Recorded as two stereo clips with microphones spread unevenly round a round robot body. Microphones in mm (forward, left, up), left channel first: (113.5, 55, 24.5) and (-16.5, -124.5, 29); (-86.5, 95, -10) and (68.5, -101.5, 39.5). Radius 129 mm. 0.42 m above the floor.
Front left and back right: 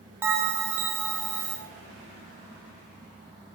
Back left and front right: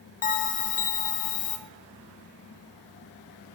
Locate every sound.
0.2 s a bell: 155° left, 1.0 m